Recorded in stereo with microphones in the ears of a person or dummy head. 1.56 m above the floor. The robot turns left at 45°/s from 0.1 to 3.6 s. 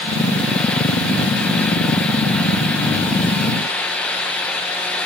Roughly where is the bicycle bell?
I don't hear a bicycle bell.